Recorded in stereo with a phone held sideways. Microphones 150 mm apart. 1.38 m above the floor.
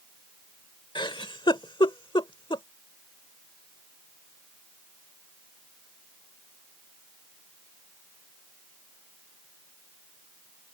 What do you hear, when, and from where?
0.9 s a giggle: 30° left (ahead or behind)